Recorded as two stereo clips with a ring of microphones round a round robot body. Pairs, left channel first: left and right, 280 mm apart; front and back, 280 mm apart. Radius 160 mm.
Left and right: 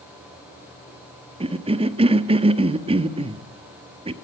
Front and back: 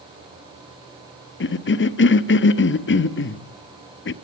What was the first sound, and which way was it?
A cough, 25° right.